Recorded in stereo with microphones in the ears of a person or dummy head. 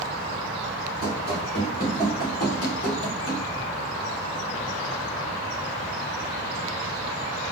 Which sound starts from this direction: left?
Running footsteps, at 1.0 s.